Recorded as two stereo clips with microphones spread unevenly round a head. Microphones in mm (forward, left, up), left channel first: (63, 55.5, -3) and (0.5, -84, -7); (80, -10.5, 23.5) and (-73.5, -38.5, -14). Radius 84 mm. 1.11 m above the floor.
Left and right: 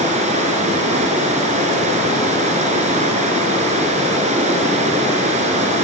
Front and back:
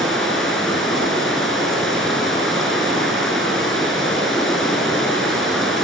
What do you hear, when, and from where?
0.0 s running water: 75° right, 4.5 m